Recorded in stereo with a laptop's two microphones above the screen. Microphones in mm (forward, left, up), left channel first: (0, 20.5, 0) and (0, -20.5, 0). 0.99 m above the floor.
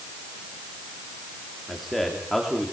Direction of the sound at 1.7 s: 5° left (ahead or behind).